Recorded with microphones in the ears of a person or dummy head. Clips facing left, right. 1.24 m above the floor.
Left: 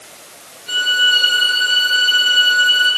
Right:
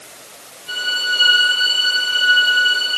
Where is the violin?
15° left (ahead or behind), 6 m.